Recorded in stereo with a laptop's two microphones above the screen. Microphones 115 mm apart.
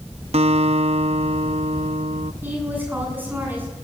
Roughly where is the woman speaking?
Centre.